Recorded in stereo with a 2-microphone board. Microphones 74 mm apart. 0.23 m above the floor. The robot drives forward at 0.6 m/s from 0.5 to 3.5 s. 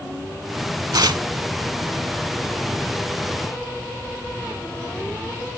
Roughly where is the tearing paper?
Right.